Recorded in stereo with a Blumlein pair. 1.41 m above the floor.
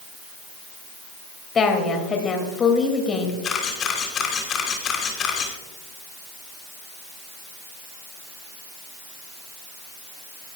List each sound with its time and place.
1.6 s a woman speaking: 20° left, 2.5 m
3.4 s a camera shutter: 25° left, 3 m